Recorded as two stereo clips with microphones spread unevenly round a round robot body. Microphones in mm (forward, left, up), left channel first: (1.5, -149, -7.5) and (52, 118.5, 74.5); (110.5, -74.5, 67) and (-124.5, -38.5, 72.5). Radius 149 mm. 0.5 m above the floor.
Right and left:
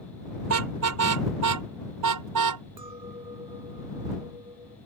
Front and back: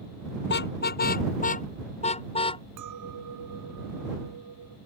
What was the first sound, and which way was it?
A car horn, 45° left.